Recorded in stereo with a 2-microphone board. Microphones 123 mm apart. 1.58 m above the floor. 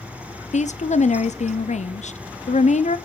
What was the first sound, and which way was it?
A woman speaking, 70° left (ahead or behind).